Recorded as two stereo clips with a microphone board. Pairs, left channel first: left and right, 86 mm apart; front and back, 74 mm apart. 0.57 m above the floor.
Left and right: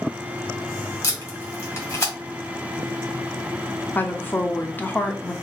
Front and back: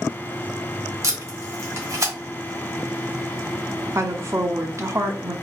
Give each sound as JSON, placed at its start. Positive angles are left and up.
{"t": 1.0, "sound": "tape being pulled", "azimuth_deg": 140, "distance_m": 2.0}
{"t": 4.0, "sound": "a woman speaking", "azimuth_deg": 150, "distance_m": 0.8}